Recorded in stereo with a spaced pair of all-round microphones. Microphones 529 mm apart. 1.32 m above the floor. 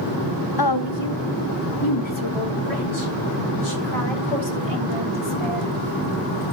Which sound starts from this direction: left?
A woman speaking, at 0.6 s.